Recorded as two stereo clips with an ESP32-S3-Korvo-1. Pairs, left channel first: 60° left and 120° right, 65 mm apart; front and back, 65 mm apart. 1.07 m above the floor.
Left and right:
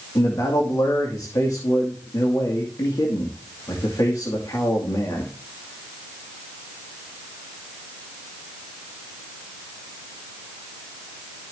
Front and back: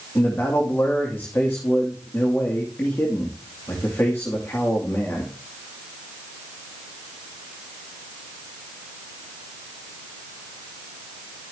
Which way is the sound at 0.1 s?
50° left.